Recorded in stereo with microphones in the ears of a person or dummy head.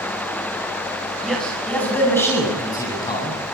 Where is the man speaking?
Centre (ahead or behind), 7.5 m; by 3.4 s 25° left (ahead or behind), 7.5 m.